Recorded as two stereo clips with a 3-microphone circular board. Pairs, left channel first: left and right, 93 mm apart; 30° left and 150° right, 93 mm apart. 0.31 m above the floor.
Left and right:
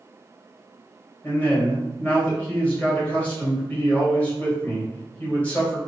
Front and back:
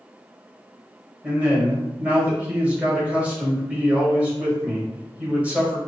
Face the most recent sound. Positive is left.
turn(degrees=150)